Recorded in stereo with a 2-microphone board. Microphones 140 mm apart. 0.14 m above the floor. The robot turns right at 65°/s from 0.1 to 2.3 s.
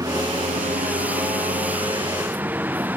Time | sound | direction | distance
0.0 | a vehicle | 155° right | ?